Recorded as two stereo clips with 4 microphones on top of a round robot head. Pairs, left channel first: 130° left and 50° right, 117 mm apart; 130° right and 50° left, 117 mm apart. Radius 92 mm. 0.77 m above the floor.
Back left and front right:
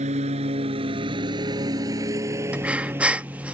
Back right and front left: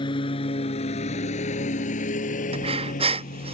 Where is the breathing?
30° left.